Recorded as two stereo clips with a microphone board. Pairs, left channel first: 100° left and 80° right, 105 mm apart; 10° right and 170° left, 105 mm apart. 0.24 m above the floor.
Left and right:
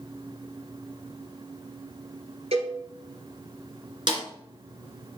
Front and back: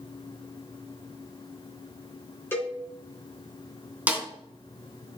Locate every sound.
2.5 s a cowbell: 80° right, 2.5 m
4.1 s a snare drum: 115° right, 2.5 m